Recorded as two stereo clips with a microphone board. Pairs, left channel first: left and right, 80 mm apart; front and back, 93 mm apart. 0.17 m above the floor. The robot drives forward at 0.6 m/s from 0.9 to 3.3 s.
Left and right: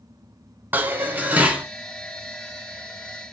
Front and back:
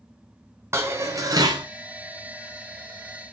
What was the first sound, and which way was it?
Dishes clattering, 140° right.